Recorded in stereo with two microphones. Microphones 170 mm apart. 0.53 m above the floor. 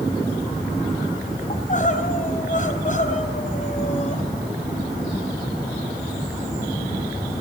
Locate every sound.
1.5 s crying: 50° left (ahead or behind), 3.5 m